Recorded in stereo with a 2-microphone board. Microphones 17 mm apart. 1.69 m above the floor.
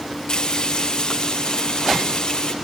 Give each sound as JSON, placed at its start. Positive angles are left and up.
{"t": 0.3, "sound": "frying", "side_deg": 45, "distance_m": 5.5}